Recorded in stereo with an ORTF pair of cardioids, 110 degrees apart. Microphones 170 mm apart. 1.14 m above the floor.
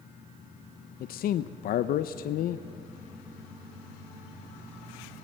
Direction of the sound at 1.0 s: 60° left.